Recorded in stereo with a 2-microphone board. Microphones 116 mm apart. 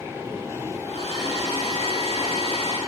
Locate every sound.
0.8 s a hair dryer: 65° left (ahead or behind), 10 m